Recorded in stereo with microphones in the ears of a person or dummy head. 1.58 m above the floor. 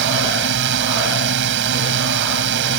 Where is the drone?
65° right (ahead or behind).